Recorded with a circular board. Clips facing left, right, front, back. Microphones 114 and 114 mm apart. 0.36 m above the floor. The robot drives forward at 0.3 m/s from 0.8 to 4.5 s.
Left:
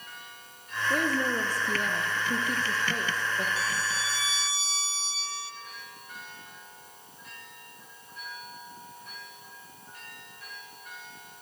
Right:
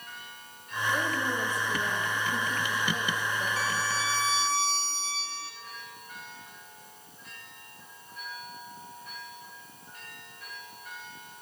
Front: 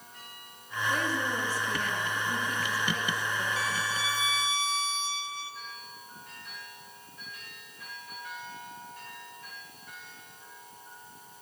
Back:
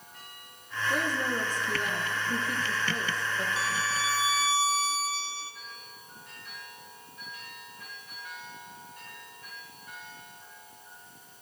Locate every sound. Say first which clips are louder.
0.9 s a woman speaking: left 3 dB, back 1 dB; 105° left, 5.5 m; by 3.5 s 110° left, 5.5 m
3.6 s a violin: right 2 dB, back 1 dB; 120° right, 3 m; by 5.5 s 125° right, 3.5 m